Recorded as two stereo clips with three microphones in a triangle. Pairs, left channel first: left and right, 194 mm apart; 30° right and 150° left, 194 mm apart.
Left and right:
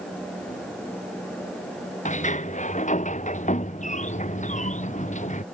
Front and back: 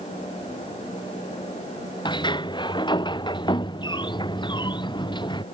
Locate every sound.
2.0 s a sliding door: 35° left